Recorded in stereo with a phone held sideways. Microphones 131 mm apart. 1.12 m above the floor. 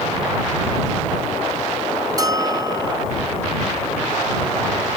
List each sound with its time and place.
2.2 s a bell: 30° right (ahead or behind)